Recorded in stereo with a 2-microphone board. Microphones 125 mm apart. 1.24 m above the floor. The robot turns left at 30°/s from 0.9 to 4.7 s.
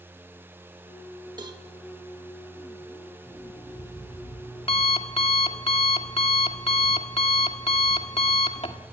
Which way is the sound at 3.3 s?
170° left.